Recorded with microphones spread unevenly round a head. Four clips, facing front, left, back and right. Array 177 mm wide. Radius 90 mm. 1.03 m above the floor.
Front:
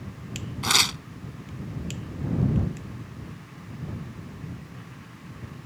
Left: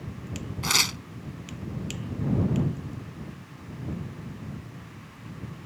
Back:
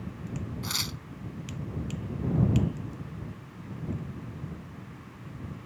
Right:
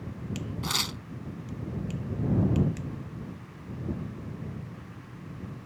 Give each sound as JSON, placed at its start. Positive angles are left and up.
{"t": 0.6, "sound": "tearing paper", "azimuth_deg": 40}